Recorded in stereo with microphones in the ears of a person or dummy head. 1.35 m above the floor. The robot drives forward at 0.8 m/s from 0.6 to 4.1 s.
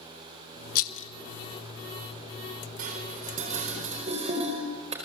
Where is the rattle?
50° left (ahead or behind), 0.7 m; by 1.1 s 40° left (ahead or behind), 0.8 m.